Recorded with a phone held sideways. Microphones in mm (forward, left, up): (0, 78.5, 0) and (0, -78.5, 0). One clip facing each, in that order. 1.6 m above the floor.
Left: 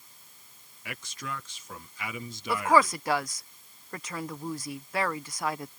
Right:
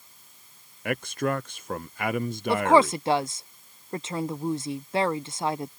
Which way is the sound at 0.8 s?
60° right (ahead or behind).